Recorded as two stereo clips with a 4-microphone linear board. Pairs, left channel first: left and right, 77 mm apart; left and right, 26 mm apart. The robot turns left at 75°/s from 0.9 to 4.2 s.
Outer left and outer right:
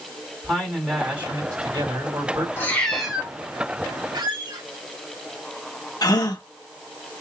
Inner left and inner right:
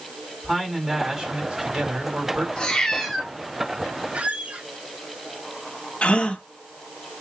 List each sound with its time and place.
0.4 s a man speaking: straight ahead, 3.5 m; by 2.5 s 120° right, 3.5 m
2.6 s a cat meowing: 30° left, 1.6 m; by 3.3 s 25° right, 1.6 m
4.1 s a squeak: 70° right (ahead or behind), 2 m; by 4.7 s 75° right (ahead or behind), 2 m
6.0 s a gasp: 55° left (ahead or behind), 1.0 m